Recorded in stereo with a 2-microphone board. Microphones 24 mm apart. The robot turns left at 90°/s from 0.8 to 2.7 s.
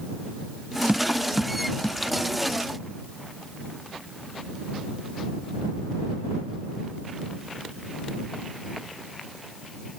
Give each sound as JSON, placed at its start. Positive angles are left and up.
{"t": 0.9, "sound": "tapping", "side_deg": -50}